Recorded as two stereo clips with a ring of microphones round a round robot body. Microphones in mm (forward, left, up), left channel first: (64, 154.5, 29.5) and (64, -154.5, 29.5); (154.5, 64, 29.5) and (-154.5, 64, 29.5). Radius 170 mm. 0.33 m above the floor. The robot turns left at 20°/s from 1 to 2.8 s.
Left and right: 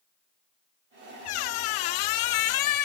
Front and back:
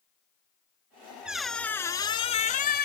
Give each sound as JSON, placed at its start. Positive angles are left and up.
{"t": 1.2, "sound": "a squeak", "azimuth_deg": 95, "distance_m": 0.5}